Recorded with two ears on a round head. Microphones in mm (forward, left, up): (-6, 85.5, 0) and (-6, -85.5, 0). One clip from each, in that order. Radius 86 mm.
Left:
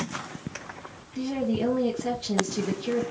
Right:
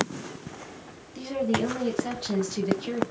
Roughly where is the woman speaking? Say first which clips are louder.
Right 1 dB; right.